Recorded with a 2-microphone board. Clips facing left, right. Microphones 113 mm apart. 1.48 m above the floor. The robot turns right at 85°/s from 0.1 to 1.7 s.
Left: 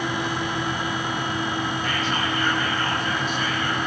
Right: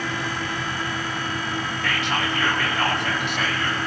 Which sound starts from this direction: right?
Whispering, at 1.8 s.